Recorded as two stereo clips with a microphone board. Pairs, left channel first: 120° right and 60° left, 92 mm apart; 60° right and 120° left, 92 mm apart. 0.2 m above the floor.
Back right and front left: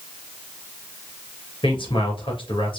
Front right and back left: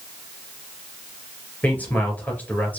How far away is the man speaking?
About 3.5 m.